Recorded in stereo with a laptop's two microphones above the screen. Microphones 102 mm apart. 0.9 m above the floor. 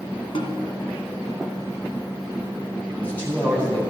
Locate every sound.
0.3 s a snare drum: 60° left (ahead or behind), 1.5 m
2.9 s a man speaking: 15° left (ahead or behind), 4 m